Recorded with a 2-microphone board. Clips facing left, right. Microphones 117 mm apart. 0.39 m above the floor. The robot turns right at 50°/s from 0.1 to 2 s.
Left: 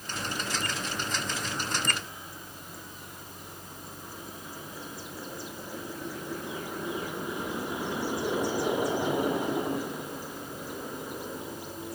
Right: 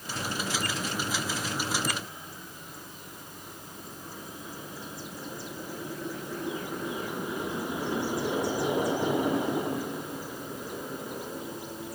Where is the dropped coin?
I don't hear a dropped coin.